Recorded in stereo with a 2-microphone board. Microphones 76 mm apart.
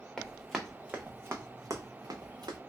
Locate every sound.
0.2 s running footsteps: 5° left (ahead or behind), 0.9 m; by 2.6 s 70° right (ahead or behind), 1.0 m